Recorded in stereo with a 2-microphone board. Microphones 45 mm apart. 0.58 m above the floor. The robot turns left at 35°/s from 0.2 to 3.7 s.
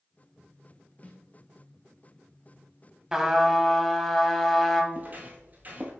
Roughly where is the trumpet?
Centre.